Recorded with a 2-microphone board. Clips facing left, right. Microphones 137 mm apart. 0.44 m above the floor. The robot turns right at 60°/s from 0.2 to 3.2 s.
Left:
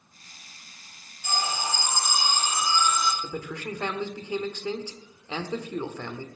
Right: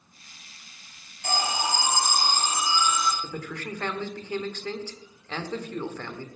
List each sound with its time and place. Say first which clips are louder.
1.2 s an alarm: right 2 dB; 105° right, 3 m; by 3.1 s 5° left, 3 m
3.2 s a man speaking: left 1 dB; 10° left (ahead or behind), 1.3 m